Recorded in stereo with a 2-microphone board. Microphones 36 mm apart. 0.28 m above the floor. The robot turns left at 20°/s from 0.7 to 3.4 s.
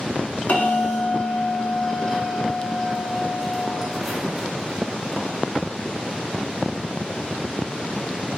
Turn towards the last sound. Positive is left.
turn(degrees=-10)